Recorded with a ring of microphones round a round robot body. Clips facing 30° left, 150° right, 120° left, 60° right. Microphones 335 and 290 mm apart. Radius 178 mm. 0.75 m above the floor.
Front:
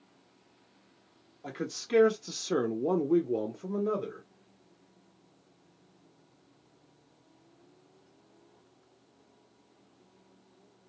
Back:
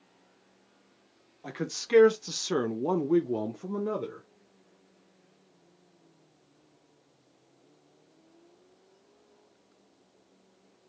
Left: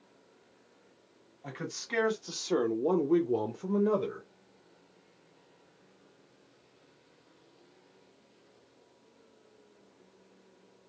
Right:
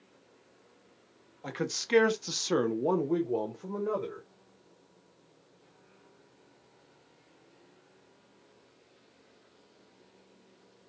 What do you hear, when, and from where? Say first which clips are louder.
1.4 s a man speaking: back 1 dB, right 6 dB; 70° right, 0.9 m; by 4.2 s 125° left, 0.9 m